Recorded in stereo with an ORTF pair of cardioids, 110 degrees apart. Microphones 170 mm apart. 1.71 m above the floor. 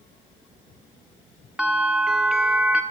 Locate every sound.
1.6 s a bell: 5° right, 1.2 m